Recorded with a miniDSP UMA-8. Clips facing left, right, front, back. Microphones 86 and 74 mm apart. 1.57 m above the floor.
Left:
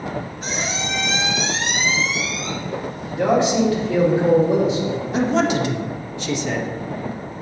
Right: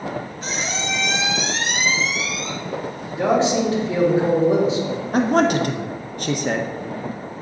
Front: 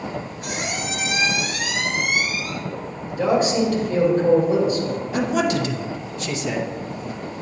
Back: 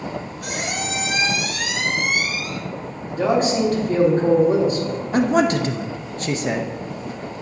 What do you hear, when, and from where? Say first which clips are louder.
0.4 s a squeak: even, back 2 dB; 175° left, 1.9 m
3.1 s a man speaking: left 1 dB, even; 145° right, 2.5 m
5.1 s a man speaking: right 2 dB, back 4 dB; 130° right, 0.5 m